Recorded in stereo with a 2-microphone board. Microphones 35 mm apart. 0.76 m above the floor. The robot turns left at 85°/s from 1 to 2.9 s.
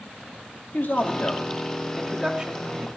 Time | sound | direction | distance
0.7 | a man speaking | 90° left | 1.7 m